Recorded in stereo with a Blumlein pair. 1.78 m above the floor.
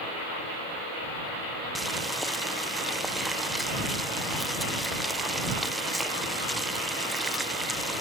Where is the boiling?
5° right.